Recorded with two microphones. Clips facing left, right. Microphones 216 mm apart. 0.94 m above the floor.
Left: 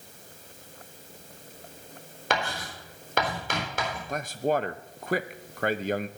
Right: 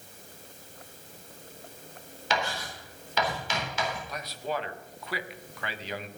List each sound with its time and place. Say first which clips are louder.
2.3 s writing: left 1 dB; 55° left (ahead or behind), 4 m
4.1 s a man speaking: left 7 dB; 50° left (ahead or behind), 0.7 m